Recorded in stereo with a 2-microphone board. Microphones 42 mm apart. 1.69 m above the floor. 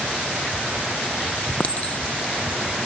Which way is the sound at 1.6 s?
30° left (ahead or behind).